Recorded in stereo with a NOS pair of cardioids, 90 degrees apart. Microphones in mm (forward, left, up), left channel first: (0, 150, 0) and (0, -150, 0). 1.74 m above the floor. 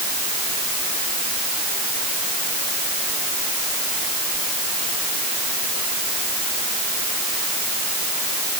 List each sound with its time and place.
Only background noise.